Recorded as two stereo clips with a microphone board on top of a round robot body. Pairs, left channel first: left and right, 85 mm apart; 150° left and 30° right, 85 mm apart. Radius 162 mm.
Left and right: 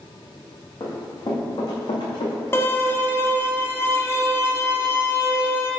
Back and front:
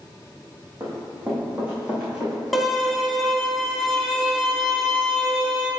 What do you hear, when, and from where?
0.8 s running footsteps: 35° left, 1.9 m; by 3.4 s 60° left, 3 m
2.5 s a violin: 60° left, 1.4 m